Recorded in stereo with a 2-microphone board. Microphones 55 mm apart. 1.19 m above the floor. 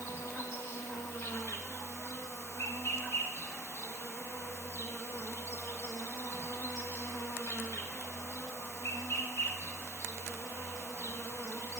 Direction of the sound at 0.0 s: 55° left (ahead or behind).